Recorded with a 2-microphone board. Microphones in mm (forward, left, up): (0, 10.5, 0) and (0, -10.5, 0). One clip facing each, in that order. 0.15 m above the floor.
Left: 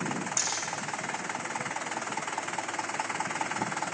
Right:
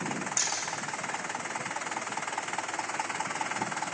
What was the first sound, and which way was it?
Hammering, 5° left (ahead or behind).